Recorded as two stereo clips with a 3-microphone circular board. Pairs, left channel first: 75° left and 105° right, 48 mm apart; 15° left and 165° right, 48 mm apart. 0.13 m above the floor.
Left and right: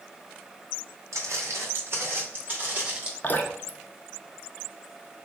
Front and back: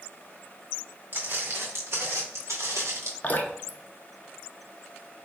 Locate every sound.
1.1 s footsteps: 120° right, 1.7 m; by 3.1 s 175° right, 1.7 m
3.2 s dripping: 50° left, 0.5 m